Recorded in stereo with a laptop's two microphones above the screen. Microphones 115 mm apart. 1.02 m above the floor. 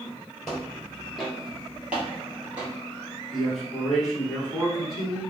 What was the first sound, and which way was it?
Footsteps, 5° left (ahead or behind).